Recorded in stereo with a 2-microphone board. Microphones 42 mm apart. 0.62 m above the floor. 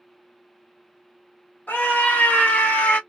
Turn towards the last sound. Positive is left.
turn(degrees=40)  # may be behind; listen again after turning